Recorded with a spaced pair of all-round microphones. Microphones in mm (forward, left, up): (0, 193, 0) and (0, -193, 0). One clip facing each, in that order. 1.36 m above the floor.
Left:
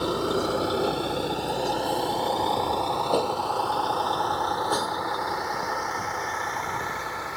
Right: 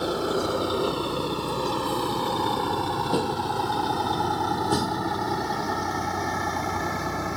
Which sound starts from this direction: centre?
A vehicle, at 0.0 s.